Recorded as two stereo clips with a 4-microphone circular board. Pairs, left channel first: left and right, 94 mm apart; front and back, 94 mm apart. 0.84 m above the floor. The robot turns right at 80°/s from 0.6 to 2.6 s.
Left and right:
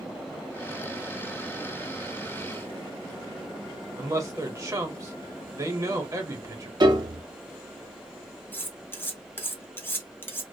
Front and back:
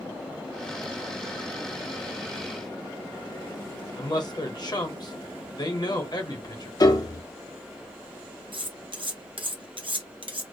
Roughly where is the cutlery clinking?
Behind.